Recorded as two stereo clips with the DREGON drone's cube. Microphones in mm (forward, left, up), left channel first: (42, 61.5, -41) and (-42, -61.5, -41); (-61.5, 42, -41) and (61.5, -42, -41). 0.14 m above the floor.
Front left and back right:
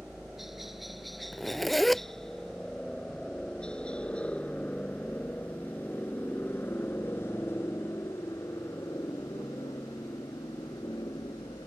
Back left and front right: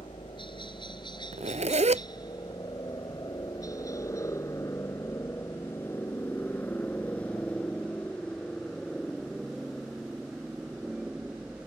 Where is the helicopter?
150° left; by 11.7 s 40° left.